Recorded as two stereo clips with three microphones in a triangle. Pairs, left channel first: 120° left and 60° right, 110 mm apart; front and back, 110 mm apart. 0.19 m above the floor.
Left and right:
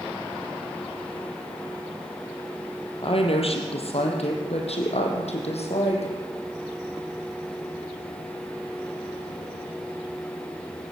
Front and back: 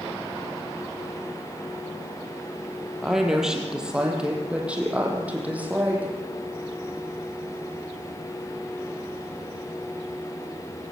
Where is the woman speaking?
90° left, 4 m; by 6.1 s 105° left, 6.5 m.